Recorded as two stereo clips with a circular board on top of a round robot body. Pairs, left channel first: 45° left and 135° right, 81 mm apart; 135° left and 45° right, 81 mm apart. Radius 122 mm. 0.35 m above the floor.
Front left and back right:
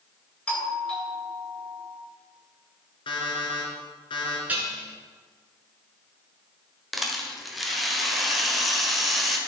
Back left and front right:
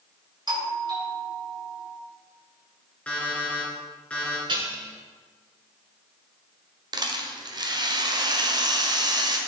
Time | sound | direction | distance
0.5 | a doorbell | 30° right | 3 m
3.1 | an alarm clock | 60° left | 3 m
4.5 | dishes clattering | 65° right | 3.5 m
6.9 | a rattle | 45° right | 1.7 m